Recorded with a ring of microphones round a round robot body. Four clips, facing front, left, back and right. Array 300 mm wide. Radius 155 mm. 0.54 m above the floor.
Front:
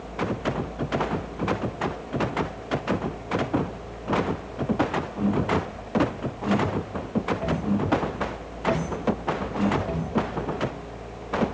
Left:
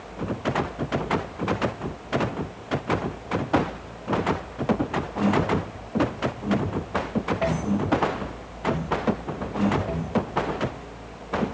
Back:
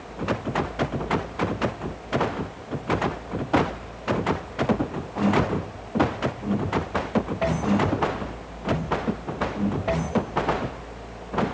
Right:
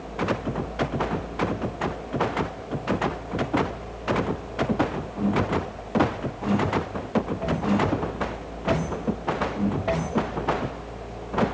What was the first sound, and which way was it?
Only background noise.